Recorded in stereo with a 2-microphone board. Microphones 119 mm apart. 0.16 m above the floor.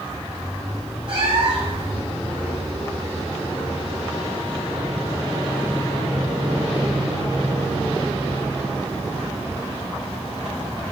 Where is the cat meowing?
55° right (ahead or behind), 1.6 m.